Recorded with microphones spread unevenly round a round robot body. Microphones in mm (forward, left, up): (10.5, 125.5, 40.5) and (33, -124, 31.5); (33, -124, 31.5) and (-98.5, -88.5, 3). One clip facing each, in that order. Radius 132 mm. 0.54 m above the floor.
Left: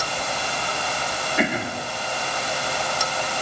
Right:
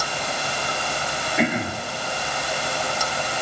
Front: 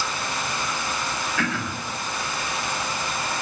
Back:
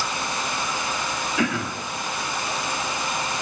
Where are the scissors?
I don't hear scissors.